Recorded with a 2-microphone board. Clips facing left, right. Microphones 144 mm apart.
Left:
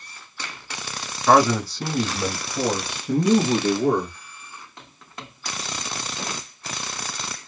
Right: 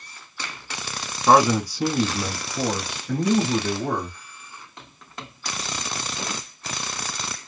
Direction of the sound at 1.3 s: 25° right (ahead or behind).